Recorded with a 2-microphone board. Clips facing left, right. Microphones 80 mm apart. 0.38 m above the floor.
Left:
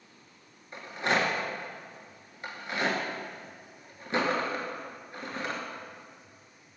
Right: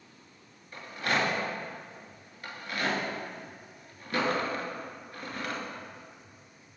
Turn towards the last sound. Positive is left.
turn(degrees=25)  # may be behind; listen again after turning